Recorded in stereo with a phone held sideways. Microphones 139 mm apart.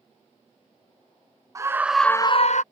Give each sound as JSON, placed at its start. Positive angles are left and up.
{"t": 1.6, "sound": "a scream", "side_deg": -25}